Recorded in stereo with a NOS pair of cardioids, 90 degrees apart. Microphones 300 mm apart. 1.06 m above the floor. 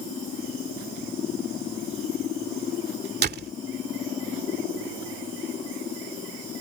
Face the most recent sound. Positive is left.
turn(degrees=-35)